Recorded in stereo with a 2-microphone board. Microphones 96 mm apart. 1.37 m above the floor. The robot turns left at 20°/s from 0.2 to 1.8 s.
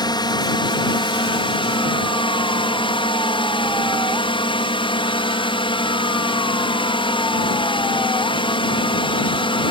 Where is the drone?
125° left; by 9.7 s 90° left.